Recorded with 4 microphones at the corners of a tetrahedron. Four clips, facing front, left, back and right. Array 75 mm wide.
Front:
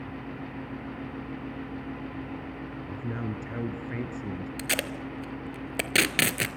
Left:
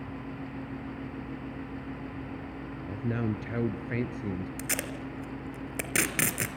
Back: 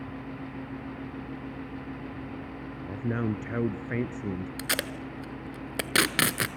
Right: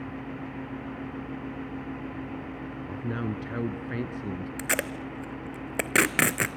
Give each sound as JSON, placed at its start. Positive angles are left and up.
{"t": 2.8, "sound": "a man speaking", "azimuth_deg": 180, "distance_m": 1.2}
{"t": 4.6, "sound": "tape being pulled", "azimuth_deg": -95, "distance_m": 1.1}